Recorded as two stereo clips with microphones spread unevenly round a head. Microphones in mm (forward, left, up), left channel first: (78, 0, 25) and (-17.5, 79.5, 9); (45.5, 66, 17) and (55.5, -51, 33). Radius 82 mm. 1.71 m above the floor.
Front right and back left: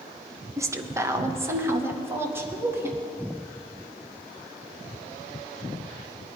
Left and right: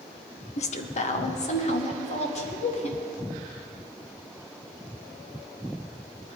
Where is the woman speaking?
70° left, 1.1 m; by 3.0 s 65° left, 3 m.